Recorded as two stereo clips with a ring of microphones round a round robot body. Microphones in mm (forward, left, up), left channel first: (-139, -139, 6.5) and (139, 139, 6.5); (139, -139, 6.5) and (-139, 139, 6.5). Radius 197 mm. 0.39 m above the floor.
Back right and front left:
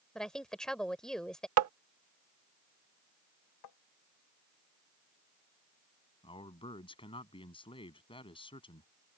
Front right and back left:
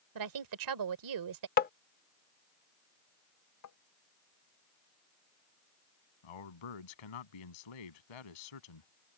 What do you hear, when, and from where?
0.1 s a woman speaking: 135° left
1.6 s tapping: 10° left
3.6 s tapping: 95° right
6.2 s a man speaking: 55° right